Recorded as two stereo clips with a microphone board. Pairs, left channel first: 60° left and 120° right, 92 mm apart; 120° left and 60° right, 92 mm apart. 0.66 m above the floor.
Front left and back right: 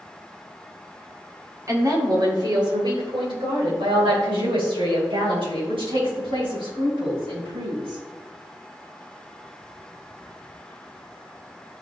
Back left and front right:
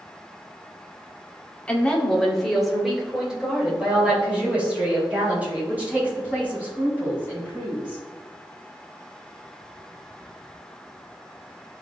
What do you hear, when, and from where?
1.7 s a woman speaking: 165° right, 1.7 m; by 8.0 s 130° right, 7 m